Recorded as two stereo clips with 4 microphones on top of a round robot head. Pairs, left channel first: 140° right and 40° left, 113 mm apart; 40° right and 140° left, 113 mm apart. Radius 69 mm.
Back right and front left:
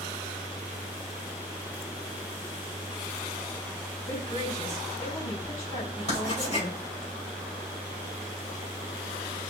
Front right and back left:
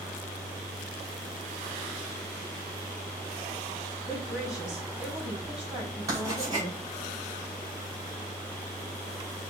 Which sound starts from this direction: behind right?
A woman speaking, at 4.0 s.